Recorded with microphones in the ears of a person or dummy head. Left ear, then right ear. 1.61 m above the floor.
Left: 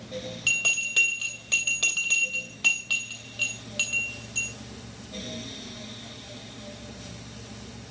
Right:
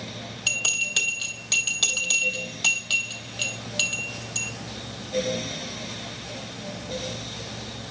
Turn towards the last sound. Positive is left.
turn(degrees=-5)  # may be behind; listen again after turning